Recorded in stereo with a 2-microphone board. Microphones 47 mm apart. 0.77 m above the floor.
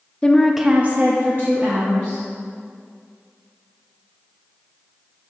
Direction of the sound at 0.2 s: 25° left (ahead or behind).